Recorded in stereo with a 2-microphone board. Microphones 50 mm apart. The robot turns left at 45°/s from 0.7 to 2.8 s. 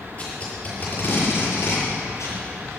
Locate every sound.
0.2 s tape being pulled: 30° left (ahead or behind), 7 m; by 2.4 s 70° left (ahead or behind), 7 m